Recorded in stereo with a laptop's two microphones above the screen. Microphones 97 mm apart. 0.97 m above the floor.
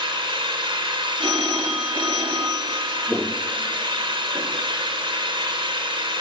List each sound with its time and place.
0.0 s an engine running: 60° right (ahead or behind), 3 m
1.2 s a phone ringing: 55° right (ahead or behind), 1.3 m
3.1 s footsteps: 5° left (ahead or behind), 1.0 m; by 4.7 s 65° right (ahead or behind), 2 m